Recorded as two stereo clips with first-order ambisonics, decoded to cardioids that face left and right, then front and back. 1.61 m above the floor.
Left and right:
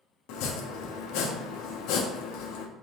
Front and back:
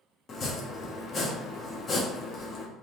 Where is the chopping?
65° left, 0.7 m.